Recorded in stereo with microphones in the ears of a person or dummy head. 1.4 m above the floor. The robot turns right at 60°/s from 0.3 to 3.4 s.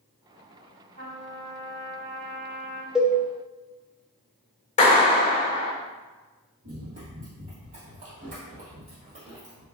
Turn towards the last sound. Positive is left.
turn(degrees=-30)  # may be behind; listen again after turning